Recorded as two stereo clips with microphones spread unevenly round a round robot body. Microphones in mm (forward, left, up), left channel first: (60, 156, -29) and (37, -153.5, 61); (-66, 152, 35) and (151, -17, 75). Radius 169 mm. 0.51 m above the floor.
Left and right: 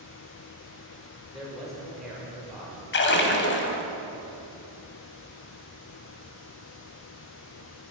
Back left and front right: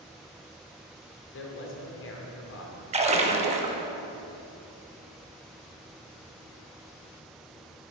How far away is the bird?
I don't hear a bird.